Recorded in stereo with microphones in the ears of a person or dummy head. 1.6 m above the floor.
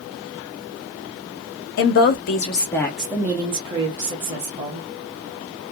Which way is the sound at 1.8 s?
50° left (ahead or behind).